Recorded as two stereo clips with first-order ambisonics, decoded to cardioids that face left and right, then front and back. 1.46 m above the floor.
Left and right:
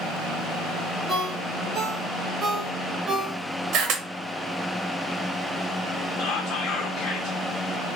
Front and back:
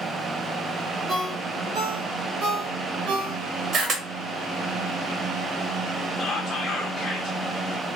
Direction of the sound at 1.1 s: 165° right.